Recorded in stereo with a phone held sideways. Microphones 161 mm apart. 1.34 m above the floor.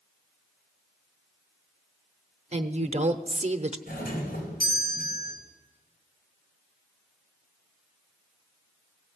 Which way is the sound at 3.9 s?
65° left (ahead or behind).